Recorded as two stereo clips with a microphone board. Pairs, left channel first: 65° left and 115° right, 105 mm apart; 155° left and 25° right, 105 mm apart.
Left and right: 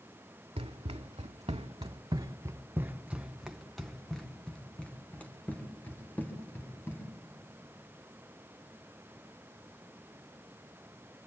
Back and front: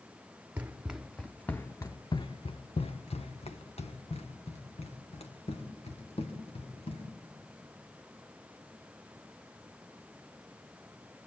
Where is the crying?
No crying in this recording.